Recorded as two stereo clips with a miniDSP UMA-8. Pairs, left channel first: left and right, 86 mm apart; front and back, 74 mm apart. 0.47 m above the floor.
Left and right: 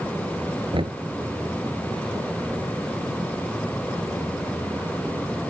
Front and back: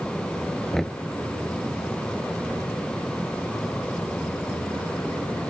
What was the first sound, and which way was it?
Knocking, 85° right.